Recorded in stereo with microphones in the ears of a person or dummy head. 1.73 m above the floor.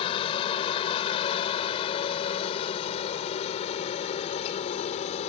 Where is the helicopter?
30° left (ahead or behind); by 5.3 s 35° left (ahead or behind).